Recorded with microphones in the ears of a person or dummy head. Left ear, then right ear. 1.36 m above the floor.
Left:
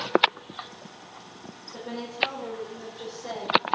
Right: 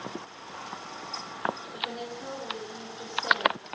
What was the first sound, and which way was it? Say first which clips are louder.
A woman speaking: right 1 dB; 40° right (ahead or behind).